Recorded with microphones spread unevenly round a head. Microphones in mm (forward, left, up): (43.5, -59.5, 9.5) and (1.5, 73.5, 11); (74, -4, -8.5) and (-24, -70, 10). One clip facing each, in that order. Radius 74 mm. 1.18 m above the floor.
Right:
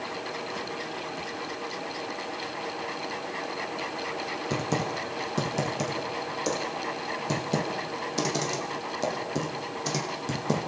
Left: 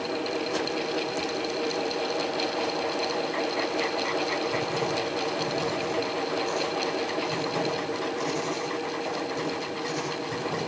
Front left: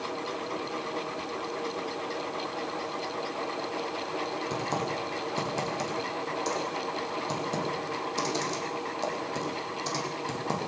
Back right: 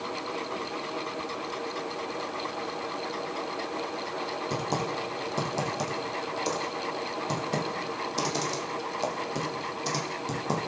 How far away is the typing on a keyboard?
About 8 m.